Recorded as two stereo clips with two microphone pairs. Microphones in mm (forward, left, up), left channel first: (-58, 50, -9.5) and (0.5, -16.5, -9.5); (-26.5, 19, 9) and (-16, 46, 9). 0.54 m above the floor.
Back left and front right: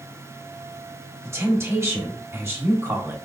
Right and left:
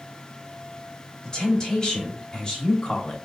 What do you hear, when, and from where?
1.2 s a woman speaking: 75° right, 1.1 m